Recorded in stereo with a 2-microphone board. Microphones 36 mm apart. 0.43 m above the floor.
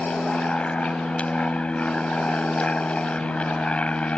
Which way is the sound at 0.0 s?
30° left (ahead or behind).